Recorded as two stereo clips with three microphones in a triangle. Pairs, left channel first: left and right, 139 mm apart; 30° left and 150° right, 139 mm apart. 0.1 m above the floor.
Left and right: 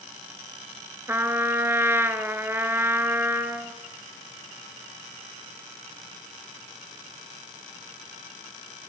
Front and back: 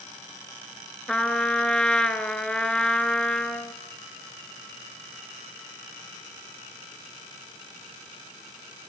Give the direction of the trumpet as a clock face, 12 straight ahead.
2 o'clock.